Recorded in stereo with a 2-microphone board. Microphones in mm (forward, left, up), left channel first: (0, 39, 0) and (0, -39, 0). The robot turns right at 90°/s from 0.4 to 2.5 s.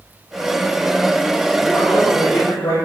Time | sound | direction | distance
1.6 | a man speaking | straight ahead | 4 m